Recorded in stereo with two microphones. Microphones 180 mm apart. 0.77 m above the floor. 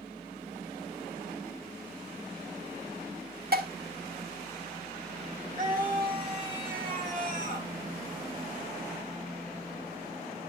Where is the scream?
55° right (ahead or behind), 9.5 m.